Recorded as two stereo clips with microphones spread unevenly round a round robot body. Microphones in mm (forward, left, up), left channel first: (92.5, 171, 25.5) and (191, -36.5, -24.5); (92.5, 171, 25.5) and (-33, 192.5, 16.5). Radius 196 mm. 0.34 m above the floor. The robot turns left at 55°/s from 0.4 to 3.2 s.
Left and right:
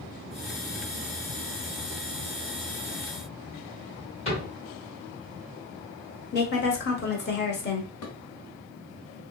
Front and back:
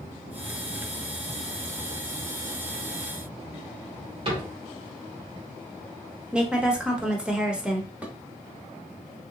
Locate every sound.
4.2 s a cupboard door: 170° right, 1.7 m
6.3 s a woman speaking: 105° left, 1.0 m
8.0 s dishes clattering: 90° left, 1.4 m